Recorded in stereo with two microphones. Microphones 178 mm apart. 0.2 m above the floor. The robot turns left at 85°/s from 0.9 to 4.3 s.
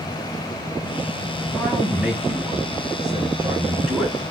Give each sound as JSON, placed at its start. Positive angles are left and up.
{"t": 1.5, "sound": "a man speaking", "side_deg": 10, "distance_m": 1.5}